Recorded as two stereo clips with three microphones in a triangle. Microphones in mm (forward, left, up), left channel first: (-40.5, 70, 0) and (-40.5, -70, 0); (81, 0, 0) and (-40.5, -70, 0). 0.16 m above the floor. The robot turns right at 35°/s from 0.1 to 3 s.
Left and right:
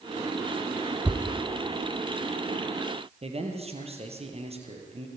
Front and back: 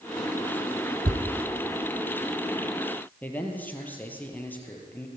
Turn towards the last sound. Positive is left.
turn(degrees=-50)